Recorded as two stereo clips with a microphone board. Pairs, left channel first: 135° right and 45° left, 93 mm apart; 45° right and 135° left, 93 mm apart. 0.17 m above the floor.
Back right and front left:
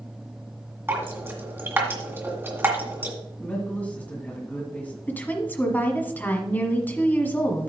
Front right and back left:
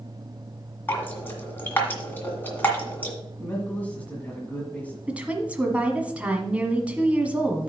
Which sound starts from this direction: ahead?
Dripping, at 0.9 s.